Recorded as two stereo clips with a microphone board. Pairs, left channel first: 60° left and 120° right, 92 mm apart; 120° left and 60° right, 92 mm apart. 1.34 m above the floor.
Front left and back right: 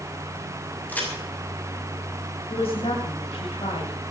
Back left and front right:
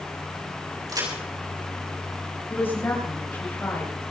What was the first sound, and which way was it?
A crack, 10° right.